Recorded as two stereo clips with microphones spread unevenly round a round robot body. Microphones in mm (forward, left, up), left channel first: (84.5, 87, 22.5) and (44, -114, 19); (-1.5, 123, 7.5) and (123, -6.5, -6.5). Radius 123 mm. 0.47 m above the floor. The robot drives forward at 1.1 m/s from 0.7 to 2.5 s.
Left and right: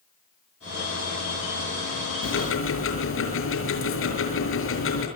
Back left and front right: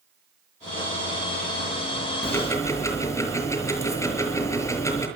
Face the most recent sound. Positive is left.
turn(degrees=60)